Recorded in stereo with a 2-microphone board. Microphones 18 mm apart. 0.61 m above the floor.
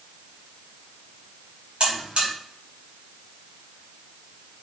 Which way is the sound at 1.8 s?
70° right (ahead or behind).